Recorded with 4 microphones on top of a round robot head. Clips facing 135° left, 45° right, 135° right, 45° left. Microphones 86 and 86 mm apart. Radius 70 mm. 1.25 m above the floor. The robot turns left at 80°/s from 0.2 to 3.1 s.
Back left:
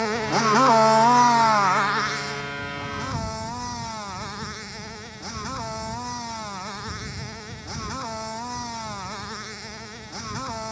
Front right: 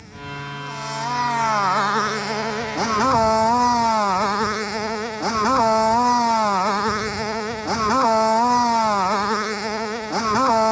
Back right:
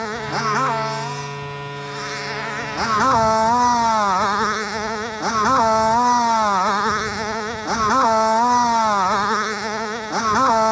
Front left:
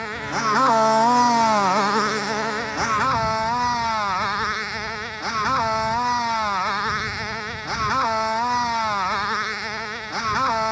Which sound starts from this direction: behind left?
A motorcycle, at 0.0 s.